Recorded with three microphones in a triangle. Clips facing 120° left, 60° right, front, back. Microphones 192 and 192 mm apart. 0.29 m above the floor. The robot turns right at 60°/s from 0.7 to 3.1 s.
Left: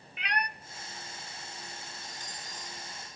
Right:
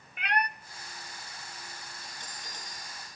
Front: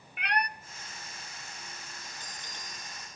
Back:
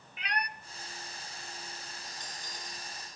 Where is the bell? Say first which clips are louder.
Left 1 dB, back 1 dB; 95° right, 5 m; by 3.2 s 30° right, 5 m.